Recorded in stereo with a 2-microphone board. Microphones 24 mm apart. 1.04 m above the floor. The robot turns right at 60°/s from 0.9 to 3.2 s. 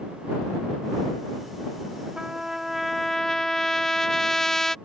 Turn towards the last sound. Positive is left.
turn(degrees=25)